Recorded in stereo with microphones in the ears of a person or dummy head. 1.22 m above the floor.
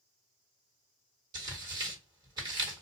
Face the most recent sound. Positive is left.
turn(degrees=-25)  # may be behind; listen again after turning